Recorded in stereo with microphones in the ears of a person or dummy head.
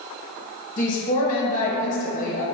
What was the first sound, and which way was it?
A woman speaking, 45° left (ahead or behind).